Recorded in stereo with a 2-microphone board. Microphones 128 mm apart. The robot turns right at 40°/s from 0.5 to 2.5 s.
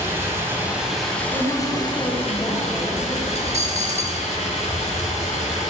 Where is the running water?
20° right, 1.8 m; by 5.7 s 60° left, 1.8 m.